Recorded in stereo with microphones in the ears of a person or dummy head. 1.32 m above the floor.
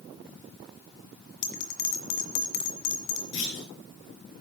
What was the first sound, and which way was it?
A bell, 50° left (ahead or behind).